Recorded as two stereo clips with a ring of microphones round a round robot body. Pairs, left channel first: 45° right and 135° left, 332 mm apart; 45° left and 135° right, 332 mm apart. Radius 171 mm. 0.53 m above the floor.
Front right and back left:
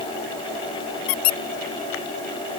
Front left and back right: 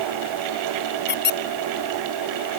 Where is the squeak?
15° right.